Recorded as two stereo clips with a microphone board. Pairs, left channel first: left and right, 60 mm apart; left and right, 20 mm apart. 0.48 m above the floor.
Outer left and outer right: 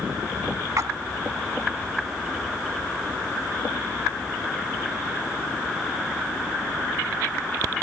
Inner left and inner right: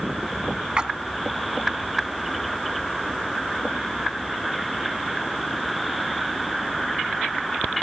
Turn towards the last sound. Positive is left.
turn(degrees=-65)  # may be behind; listen again after turning